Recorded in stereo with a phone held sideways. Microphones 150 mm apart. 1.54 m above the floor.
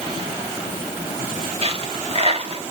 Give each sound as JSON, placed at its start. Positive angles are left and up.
{"t": 1.6, "sound": "a dropped coin", "side_deg": -40, "distance_m": 1.5}